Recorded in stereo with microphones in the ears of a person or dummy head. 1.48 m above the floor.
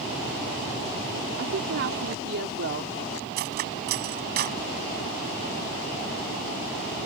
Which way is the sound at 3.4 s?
50° right (ahead or behind).